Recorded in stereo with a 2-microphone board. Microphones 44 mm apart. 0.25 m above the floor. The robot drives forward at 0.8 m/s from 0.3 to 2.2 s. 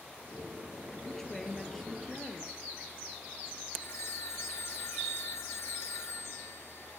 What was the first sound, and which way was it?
A woman speaking, 10° left (ahead or behind).